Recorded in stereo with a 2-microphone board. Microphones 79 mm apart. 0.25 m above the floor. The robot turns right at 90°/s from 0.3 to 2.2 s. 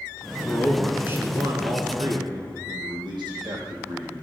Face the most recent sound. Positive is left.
turn(degrees=-65)  # may be behind; listen again after turning